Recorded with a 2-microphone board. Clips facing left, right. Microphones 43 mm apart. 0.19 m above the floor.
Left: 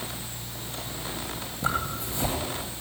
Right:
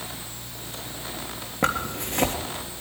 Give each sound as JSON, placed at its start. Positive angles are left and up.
{"t": 1.6, "sound": "a zipper", "side_deg": -65, "distance_m": 3.0}